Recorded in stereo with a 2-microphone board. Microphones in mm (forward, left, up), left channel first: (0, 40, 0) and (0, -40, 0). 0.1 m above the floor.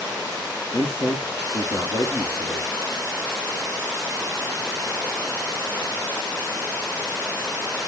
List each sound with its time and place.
0.7 s a man speaking: 45° left (ahead or behind), 2.5 m